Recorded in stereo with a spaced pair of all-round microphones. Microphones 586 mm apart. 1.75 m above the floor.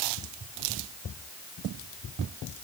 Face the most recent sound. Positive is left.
No sound to turn to.